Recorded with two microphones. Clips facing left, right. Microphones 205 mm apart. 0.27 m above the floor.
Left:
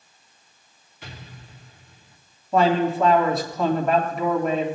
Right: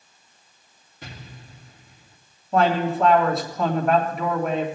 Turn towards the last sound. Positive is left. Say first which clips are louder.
# left 1 dB
turn(degrees=0)  # may be behind; listen again after turning